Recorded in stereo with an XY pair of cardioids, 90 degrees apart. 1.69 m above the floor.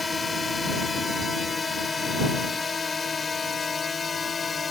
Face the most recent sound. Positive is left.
turn(degrees=40)